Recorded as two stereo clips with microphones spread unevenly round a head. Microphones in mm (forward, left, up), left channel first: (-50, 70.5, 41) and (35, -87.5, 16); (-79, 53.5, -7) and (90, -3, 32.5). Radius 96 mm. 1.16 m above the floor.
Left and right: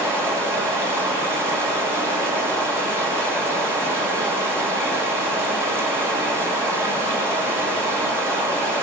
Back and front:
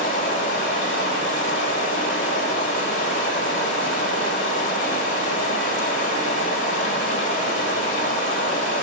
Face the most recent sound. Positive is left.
turn(degrees=-140)